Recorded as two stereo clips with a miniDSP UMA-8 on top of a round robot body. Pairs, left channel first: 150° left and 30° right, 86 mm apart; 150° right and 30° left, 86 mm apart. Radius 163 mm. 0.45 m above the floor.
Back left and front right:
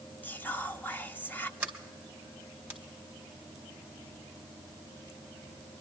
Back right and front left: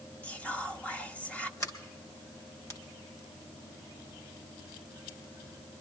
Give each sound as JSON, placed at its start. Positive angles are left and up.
{"t": 0.2, "sound": "whispering", "azimuth_deg": 170, "distance_m": 1.3}
{"t": 1.6, "sound": "a sliding door", "azimuth_deg": -105, "distance_m": 3.5}